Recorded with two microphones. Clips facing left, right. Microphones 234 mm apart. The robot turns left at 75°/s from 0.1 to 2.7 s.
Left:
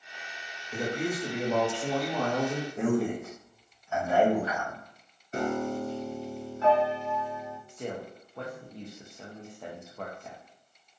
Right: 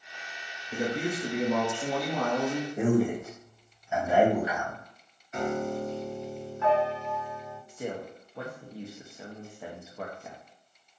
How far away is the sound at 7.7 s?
About 0.5 m.